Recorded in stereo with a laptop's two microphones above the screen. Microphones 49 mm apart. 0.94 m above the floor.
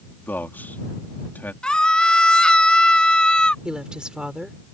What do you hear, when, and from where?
0.2 s a man speaking: 40° left (ahead or behind)
1.6 s a scream: 20° left (ahead or behind)
3.6 s a woman speaking: 20° right (ahead or behind)